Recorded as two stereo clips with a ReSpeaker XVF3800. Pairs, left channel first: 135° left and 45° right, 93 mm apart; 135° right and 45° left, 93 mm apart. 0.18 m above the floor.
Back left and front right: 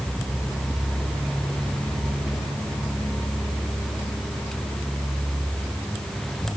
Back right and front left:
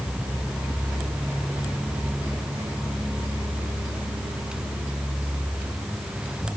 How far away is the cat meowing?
No cat meowing in this recording.